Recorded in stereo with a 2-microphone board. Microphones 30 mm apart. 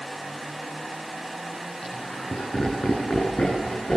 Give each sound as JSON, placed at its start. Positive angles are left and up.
{"t": 1.8, "sound": "laughter", "side_deg": 45, "distance_m": 7.5}